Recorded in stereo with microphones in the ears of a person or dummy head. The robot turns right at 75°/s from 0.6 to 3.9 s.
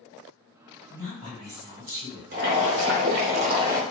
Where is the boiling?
130° right, 0.7 m; by 3.8 s 15° right, 0.7 m.